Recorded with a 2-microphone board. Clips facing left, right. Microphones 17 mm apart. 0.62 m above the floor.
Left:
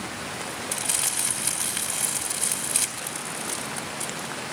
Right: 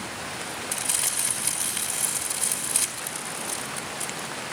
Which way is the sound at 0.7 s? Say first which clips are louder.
Left 1 dB; 10° left (ahead or behind).